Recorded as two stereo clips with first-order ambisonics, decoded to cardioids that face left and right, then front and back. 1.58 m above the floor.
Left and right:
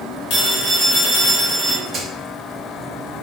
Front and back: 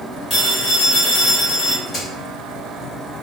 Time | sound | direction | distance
0.3 | a phone ringing | 70° left | 1.4 m
1.9 | a crack | 40° right | 1.7 m